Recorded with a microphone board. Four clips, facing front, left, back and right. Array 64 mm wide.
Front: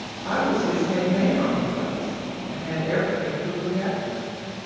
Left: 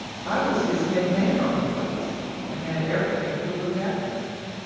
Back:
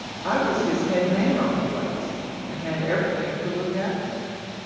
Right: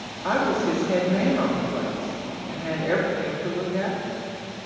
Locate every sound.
0.2 s a woman speaking: 120° right, 2 m